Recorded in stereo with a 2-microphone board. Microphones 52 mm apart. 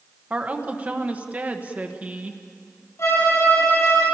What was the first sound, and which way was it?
A woman speaking, 30° right (ahead or behind).